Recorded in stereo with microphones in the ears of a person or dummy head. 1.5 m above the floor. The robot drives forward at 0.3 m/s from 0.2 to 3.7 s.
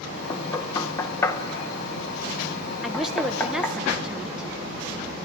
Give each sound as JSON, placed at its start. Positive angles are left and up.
{"t": 0.3, "sound": "knocking", "side_deg": 25, "distance_m": 0.7}
{"t": 2.8, "sound": "a woman speaking", "side_deg": 0, "distance_m": 0.7}